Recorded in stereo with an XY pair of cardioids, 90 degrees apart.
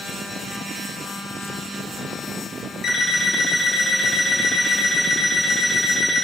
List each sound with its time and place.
2.8 s an alarm clock: 60° left, 2.5 m